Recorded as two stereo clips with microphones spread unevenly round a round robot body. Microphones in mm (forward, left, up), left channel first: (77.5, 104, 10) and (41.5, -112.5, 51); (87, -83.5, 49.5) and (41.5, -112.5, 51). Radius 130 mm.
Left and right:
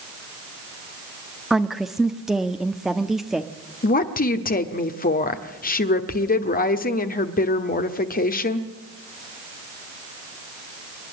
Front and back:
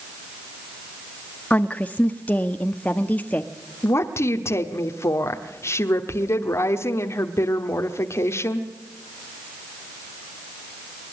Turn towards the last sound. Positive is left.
turn(degrees=45)